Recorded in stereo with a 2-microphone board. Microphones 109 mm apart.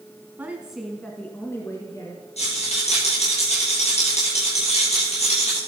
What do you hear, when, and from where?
0.4 s a woman speaking: 15° right (ahead or behind), 1.7 m; by 2.2 s 30° left (ahead or behind), 3 m
2.4 s a rattle: 70° left (ahead or behind), 10 m